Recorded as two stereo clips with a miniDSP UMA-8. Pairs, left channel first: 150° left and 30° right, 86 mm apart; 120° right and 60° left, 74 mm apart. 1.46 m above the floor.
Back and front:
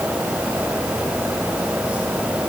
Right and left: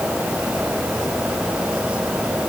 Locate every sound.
Only background noise.